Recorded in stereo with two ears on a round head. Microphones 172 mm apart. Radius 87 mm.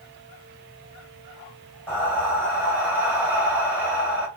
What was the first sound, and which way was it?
Breathing, 5° right (ahead or behind).